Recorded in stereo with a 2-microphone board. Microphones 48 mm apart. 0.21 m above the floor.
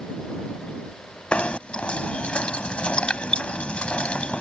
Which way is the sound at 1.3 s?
25° left (ahead or behind).